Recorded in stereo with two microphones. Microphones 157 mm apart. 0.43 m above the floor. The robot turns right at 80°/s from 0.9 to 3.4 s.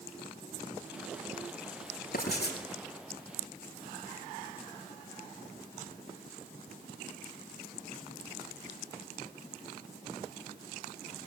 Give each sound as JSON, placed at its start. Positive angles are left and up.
{"t": 2.1, "sound": "writing", "azimuth_deg": 65, "distance_m": 7.0}